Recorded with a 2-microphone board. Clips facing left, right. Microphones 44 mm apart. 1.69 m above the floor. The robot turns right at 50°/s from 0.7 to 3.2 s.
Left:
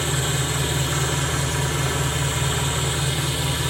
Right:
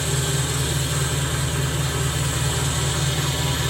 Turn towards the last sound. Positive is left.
turn(degrees=175)